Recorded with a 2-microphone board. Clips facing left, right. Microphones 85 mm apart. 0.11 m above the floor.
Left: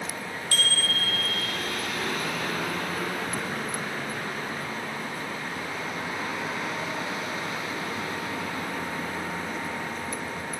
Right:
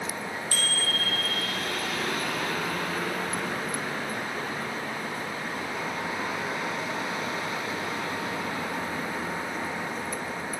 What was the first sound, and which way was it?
A bicycle bell, 65° left (ahead or behind).